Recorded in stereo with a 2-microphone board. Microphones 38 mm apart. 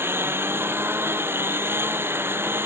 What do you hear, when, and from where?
0.0 s a lawn mower: 80° right